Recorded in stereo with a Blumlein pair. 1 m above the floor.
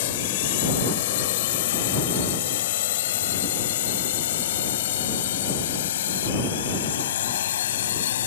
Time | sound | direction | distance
0.0 | a drone | 50° left | ?